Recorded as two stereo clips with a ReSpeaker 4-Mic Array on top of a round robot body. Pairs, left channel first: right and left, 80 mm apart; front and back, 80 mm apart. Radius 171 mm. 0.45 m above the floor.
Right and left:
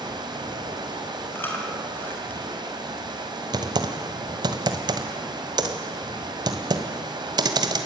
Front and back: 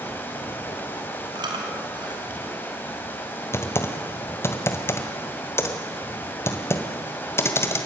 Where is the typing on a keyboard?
60° left, 1.9 m.